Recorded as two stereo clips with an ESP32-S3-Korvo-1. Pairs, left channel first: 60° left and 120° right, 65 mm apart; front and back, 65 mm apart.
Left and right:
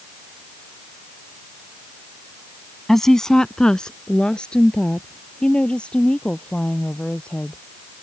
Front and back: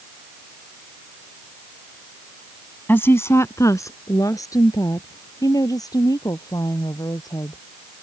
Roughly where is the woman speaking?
Ahead.